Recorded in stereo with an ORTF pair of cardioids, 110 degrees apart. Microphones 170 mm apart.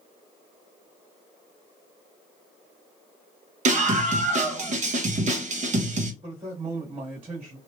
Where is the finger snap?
I don't hear a finger snap.